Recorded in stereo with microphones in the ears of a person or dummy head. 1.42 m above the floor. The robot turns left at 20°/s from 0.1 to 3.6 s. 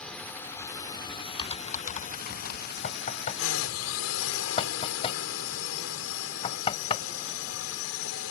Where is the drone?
175° left; by 8.3 s 105° left.